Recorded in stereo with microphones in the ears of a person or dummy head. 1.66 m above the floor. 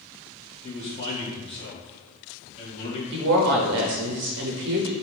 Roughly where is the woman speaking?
Right.